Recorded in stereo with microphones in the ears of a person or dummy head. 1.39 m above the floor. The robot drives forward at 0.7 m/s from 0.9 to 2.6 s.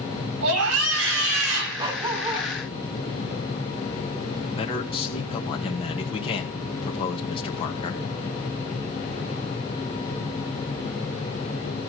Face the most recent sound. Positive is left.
turn(degrees=35)  # may be behind; listen again after turning